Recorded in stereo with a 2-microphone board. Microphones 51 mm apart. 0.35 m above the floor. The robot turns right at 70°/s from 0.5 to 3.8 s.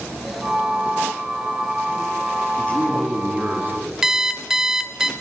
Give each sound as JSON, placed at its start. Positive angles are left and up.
{"t": 2.6, "sound": "a man speaking", "azimuth_deg": 145, "distance_m": 2.5}
{"t": 4.0, "sound": "an alarm clock", "side_deg": -10, "distance_m": 0.7}